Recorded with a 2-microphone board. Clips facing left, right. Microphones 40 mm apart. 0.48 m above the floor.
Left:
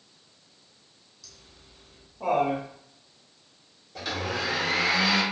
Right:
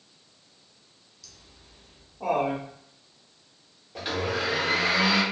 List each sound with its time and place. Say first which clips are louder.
1.2 s laughter: even; centre (ahead or behind), 0.8 m
4.0 s a blender: right 2 dB; 25° right (ahead or behind), 1.1 m